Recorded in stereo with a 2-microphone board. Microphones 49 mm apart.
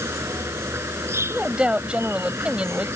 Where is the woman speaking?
25° right (ahead or behind).